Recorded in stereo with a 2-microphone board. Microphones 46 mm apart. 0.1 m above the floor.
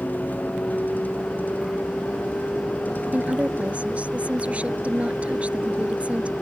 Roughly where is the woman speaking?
Right.